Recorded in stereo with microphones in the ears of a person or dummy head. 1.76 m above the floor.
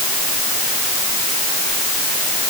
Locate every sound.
Only background noise.